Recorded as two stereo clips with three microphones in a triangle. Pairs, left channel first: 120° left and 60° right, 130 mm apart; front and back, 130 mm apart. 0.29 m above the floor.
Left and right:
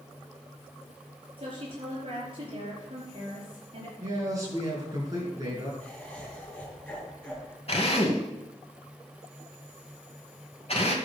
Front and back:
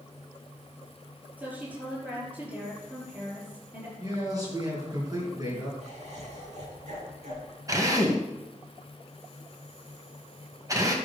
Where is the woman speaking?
105° right, 6.5 m.